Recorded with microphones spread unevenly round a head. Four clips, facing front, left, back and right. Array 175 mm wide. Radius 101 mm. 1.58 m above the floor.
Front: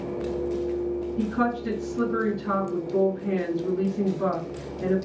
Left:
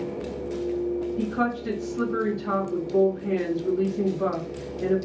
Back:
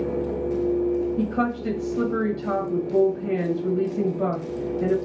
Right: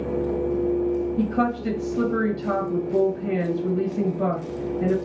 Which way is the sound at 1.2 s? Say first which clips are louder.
Right 3 dB, back 1 dB; 135° right.